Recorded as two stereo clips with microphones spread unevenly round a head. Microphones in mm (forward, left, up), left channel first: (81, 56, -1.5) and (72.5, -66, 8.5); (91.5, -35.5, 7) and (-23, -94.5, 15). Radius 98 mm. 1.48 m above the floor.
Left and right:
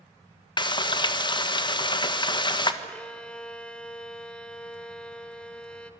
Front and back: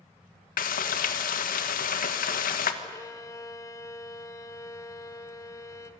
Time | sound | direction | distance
0.6 | frying | 35° left | 1.5 m
2.8 | a violin | 5° left | 1.2 m